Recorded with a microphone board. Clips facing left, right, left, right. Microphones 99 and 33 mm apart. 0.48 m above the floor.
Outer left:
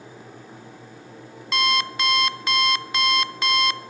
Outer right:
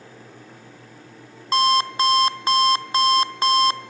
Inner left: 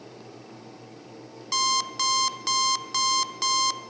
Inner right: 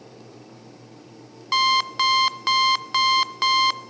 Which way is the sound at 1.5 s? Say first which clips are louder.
Outer right 5 dB, inner right 6 dB; 35° right (ahead or behind).